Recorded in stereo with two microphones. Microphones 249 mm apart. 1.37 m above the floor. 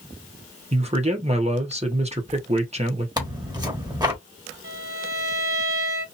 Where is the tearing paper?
15° right (ahead or behind), 1.0 m.